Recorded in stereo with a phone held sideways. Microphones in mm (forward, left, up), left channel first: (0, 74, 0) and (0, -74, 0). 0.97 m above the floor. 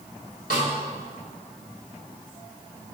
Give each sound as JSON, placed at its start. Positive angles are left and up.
{"t": 0.5, "sound": "a snare drum", "side_deg": 70, "distance_m": 3.0}